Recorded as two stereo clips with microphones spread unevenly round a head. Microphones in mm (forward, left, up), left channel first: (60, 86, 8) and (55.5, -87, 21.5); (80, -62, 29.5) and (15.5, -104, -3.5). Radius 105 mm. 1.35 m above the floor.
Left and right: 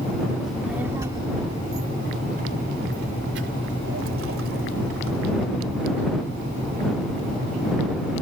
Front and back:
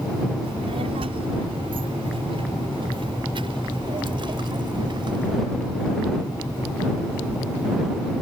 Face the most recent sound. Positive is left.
turn(degrees=-120)